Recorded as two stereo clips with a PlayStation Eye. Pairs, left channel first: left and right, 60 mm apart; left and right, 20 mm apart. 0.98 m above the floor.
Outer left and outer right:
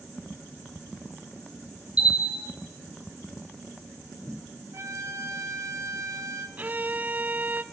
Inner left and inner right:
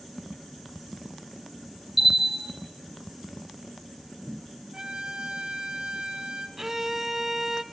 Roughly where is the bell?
Centre.